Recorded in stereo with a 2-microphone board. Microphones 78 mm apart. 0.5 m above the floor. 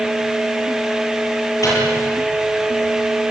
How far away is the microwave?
About 10 m.